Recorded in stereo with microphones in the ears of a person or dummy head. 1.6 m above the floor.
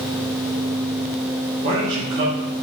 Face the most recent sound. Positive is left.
turn(degrees=-65)  # may be behind; listen again after turning